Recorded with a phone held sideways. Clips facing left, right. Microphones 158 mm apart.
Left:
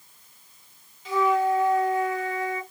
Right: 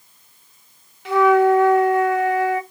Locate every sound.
1.1 s a flute: 70° right (ahead or behind), 0.6 m